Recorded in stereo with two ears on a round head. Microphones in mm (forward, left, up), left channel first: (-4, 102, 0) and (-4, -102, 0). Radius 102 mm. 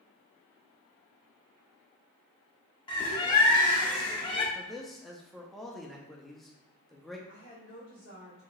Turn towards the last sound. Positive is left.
turn(degrees=-55)  # may be behind; listen again after turning